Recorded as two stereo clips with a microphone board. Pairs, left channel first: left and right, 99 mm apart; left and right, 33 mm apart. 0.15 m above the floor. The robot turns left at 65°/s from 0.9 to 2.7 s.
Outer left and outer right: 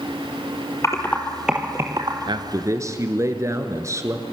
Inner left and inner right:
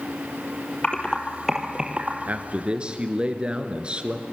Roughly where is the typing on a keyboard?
Left.